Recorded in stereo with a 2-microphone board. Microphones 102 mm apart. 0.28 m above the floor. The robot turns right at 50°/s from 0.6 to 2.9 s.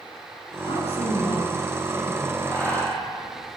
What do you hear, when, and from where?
0.7 s a woman speaking: 95° left, 9.5 m; by 2.4 s straight behind, 9.5 m
2.5 s breathing: 25° left (ahead or behind), 9.5 m; by 3.6 s 5° left (ahead or behind), 9.5 m